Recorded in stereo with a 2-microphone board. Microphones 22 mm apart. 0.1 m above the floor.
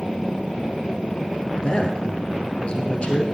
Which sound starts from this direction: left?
A man speaking, at 1.6 s.